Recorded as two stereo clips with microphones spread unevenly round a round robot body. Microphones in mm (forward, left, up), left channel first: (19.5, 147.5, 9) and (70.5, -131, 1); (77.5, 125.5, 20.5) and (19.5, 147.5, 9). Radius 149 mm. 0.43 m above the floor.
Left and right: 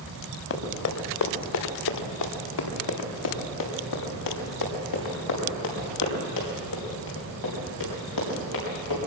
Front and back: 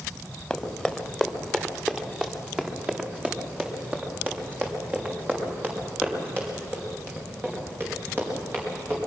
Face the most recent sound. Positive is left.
turn(degrees=105)